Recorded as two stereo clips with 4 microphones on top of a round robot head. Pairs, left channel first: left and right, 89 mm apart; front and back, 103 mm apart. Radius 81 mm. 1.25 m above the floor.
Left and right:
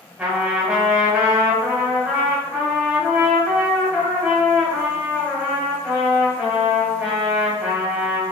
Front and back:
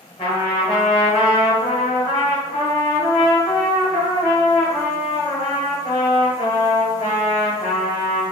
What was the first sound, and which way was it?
A trumpet, 20° right.